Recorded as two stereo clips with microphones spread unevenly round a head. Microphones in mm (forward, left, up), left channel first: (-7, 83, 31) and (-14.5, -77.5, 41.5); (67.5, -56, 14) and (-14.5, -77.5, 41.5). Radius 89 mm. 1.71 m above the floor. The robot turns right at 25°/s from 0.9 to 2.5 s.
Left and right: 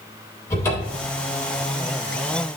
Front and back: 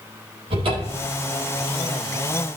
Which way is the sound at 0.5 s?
160° left.